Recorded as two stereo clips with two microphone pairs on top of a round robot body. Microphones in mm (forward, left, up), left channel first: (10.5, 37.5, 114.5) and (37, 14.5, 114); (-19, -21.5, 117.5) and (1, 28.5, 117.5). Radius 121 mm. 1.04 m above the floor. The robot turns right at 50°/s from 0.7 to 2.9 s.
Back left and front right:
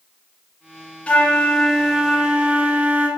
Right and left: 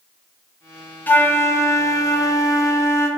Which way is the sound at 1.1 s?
170° right.